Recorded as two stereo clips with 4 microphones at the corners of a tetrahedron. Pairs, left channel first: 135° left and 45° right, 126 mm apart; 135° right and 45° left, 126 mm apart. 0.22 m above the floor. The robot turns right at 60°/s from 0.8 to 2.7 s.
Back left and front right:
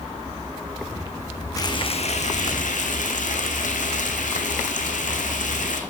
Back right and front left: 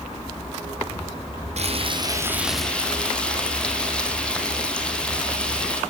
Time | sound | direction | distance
1.6 | frying | 75° left | 3 m